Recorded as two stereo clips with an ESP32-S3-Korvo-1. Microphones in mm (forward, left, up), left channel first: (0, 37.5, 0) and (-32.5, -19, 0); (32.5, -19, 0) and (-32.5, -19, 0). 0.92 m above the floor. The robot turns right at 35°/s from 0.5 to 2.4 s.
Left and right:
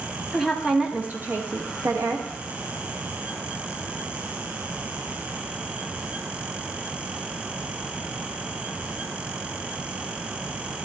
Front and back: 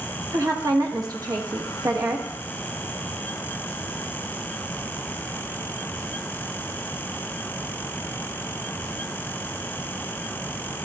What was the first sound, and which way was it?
A woman speaking, 155° left.